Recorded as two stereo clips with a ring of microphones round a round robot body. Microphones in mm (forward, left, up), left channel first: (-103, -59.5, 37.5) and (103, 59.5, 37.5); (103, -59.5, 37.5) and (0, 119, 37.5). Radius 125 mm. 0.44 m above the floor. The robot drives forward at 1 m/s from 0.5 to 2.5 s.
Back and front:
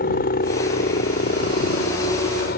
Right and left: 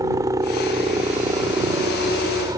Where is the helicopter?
170° right; by 2.6 s 175° right.